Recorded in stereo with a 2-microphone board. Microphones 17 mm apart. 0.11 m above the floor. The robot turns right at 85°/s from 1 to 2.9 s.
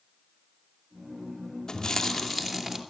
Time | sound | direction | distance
1.7 | chewing | 130° left | 2 m